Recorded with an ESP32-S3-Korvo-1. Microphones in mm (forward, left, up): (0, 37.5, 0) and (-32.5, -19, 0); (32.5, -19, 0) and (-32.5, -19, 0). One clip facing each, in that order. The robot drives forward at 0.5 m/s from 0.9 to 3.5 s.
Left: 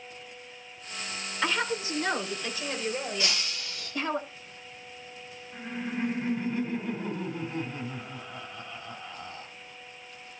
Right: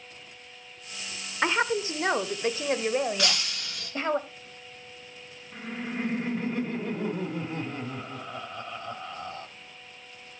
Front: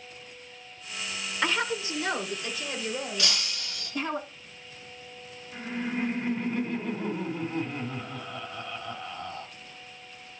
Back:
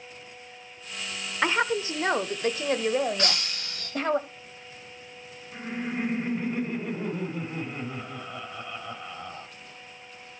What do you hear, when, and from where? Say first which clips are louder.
1.4 s a woman speaking: right 4 dB, back 4 dB; 135° right, 0.8 m; by 4.2 s 170° right, 1.5 m
3.2 s breaking glass: right 2 dB, back 3 dB; 130° right, 3 m
5.5 s laughter: even, even; 100° right, 2.5 m